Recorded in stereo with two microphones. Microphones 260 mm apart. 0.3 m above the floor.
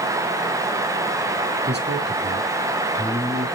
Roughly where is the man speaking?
Right.